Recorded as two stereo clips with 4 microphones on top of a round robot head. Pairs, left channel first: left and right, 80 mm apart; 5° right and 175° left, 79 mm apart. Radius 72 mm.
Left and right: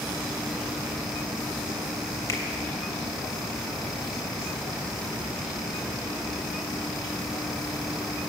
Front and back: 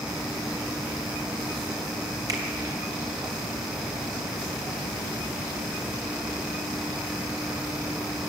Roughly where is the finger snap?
Behind left.